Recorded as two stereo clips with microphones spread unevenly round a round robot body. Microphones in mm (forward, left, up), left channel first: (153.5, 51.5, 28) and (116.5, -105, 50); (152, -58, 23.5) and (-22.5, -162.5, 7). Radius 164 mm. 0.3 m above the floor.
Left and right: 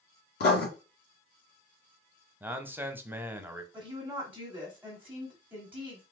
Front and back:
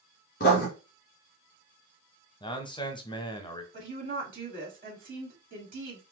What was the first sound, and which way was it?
Writing, 90° left.